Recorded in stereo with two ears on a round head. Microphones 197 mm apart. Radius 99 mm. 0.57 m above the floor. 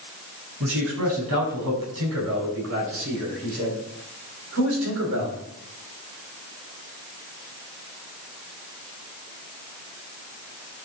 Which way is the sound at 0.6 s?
75° right (ahead or behind).